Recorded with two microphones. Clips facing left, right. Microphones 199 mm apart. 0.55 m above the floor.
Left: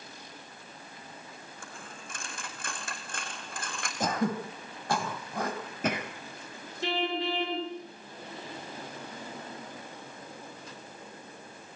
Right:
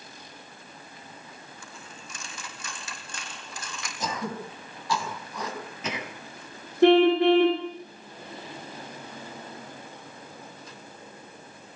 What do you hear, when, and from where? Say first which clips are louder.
1.6 s a dropped coin: even; 55° left (ahead or behind), 4 m
4.0 s throat clearing: left 4 dB; 55° left (ahead or behind), 3.5 m
6.8 s a car horn: right 15 dB; 60° right (ahead or behind), 6 m